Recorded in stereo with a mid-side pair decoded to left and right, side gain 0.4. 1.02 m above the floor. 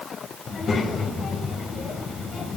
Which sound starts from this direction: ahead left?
A child speaking, at 0.5 s.